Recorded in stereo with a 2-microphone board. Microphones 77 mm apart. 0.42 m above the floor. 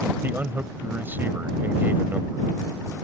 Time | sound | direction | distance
0.2 | a man speaking | 25° right (ahead or behind) | ?